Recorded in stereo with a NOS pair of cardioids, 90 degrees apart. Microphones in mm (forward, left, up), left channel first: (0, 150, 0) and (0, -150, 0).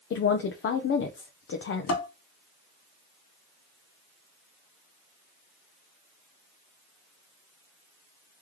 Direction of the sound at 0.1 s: 45° left.